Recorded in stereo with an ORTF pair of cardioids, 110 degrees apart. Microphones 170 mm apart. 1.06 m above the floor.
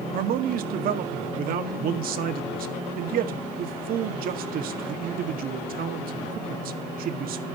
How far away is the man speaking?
About 1.7 m.